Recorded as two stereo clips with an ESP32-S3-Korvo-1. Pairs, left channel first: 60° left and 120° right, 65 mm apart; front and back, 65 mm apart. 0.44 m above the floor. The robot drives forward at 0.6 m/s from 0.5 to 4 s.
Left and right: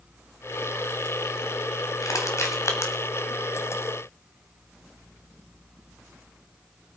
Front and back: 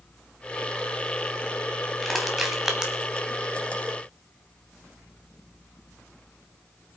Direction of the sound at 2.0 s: 85° left.